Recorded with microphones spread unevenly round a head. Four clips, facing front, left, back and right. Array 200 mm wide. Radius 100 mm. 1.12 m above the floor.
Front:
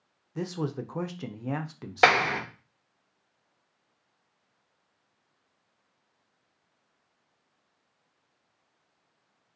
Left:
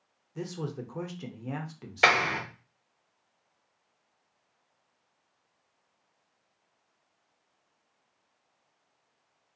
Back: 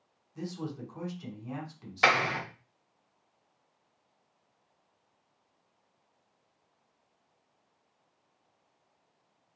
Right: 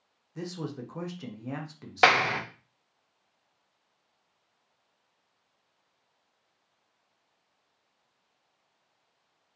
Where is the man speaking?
Straight ahead, 0.5 m.